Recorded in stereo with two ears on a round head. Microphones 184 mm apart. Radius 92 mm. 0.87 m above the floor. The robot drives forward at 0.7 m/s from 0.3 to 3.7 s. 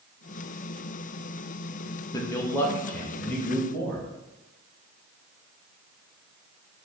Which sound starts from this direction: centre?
A man speaking, at 2.1 s.